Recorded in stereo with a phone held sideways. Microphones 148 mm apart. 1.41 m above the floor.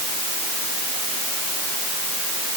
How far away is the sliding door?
I don't hear a sliding door.